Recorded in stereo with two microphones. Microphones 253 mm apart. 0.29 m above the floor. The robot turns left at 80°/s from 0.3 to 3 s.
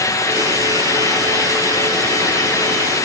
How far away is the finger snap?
I don't hear a finger snap.